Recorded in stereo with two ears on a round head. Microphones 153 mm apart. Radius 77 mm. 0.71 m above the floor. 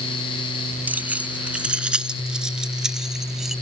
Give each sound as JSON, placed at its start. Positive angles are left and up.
{"t": 0.9, "sound": "keys jangling", "side_deg": -10}